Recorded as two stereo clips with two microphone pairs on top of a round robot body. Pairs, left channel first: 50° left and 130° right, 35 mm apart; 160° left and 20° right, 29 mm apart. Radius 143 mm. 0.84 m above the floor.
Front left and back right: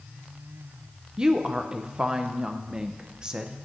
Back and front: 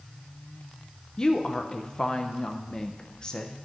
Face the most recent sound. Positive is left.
turn(degrees=-150)